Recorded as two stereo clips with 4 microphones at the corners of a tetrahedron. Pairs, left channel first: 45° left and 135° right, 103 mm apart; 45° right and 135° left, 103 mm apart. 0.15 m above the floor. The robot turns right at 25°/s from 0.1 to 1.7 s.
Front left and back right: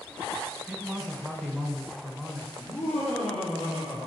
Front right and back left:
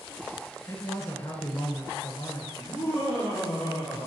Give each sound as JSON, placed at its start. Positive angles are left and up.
{"t": 0.7, "sound": "a man speaking", "azimuth_deg": -60, "distance_m": 1.4}
{"t": 2.6, "sound": "laughter", "azimuth_deg": 30, "distance_m": 3.0}